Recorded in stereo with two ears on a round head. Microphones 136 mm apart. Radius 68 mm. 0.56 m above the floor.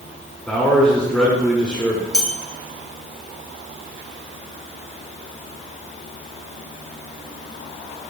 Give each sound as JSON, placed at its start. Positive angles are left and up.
{"t": 0.5, "sound": "a man speaking", "side_deg": 5, "distance_m": 0.8}
{"t": 2.1, "sound": "a bell", "side_deg": 5, "distance_m": 0.8}